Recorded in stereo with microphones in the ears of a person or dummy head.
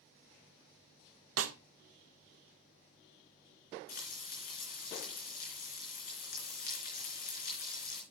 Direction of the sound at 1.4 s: 80° right.